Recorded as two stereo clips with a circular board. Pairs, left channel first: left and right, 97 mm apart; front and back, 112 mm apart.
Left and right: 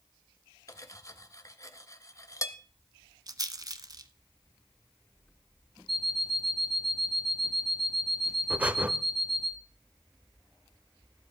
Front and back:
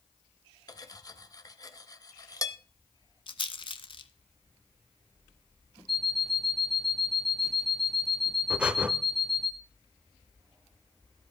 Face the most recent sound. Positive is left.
turn(degrees=-120)